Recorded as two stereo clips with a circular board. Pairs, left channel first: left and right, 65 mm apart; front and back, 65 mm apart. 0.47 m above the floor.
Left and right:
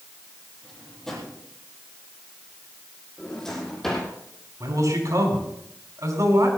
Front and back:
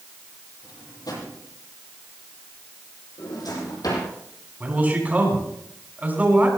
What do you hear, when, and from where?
0.6 s a drawer: 5° left, 9.5 m
3.2 s a drawer: 5° left, 8 m
4.6 s a man speaking: 115° right, 5 m